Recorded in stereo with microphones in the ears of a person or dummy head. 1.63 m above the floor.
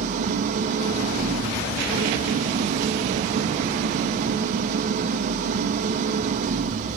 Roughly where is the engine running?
Right.